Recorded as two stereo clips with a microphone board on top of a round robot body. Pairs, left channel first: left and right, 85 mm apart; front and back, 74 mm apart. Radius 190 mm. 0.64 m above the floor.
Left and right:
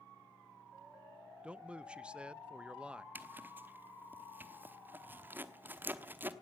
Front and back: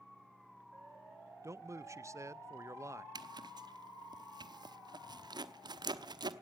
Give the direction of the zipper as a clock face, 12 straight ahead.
5 o'clock.